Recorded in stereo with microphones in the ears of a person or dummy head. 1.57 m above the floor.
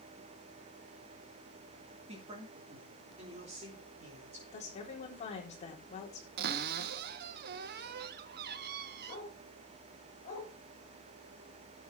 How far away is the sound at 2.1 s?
About 2.5 m.